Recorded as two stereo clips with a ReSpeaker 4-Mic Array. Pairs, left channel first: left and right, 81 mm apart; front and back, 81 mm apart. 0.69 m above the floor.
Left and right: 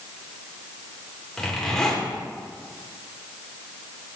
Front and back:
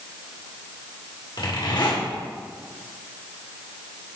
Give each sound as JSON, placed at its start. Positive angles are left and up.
{"t": 1.4, "sound": "a zipper", "azimuth_deg": 10, "distance_m": 2.0}